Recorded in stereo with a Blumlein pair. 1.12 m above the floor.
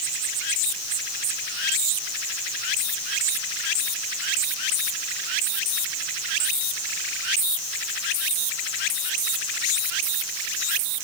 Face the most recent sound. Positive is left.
No sound to turn to.